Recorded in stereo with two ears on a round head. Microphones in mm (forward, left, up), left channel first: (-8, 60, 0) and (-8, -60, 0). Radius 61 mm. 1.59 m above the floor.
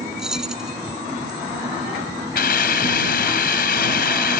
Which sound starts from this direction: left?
A hiss, at 2.4 s.